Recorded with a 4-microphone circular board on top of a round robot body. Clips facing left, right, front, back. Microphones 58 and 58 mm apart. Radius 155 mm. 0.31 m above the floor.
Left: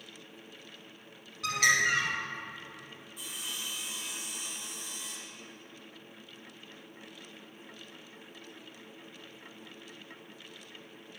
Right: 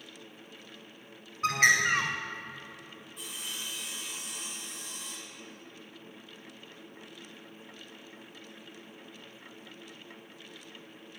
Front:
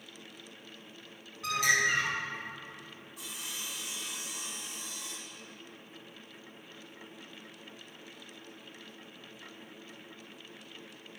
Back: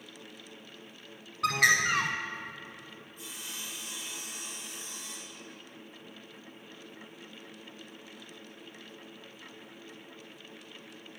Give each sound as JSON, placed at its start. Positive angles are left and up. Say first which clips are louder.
{"t": 1.4, "sound": "a bird", "louder": "right 2 dB, back 3 dB", "azimuth_deg": -150, "distance_m": 0.6}
{"t": 3.2, "sound": "sawing", "louder": "even, front 1 dB", "azimuth_deg": 0, "distance_m": 2.5}